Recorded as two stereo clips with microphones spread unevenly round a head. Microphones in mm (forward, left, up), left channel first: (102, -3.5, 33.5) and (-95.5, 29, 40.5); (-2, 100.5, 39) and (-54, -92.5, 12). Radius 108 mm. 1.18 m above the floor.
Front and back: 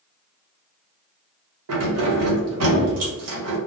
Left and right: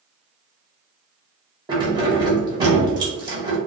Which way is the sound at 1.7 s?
175° right.